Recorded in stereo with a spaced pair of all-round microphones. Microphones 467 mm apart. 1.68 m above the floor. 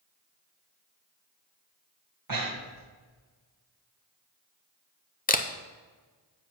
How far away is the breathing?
About 1.0 m.